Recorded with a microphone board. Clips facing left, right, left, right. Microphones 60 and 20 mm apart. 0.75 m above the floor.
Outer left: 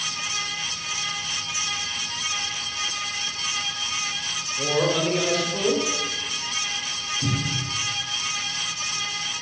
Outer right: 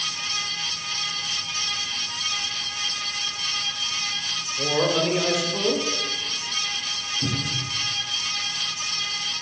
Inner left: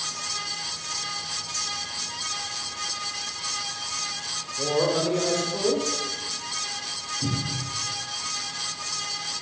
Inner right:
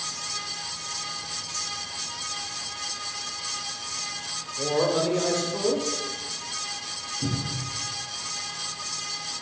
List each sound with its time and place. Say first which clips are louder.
4.6 s a man speaking: even, even; 5° right (ahead or behind), 2 m
7.2 s a cupboard door: outer left 2 dB, inner left 1 dB; 20° right (ahead or behind), 4.5 m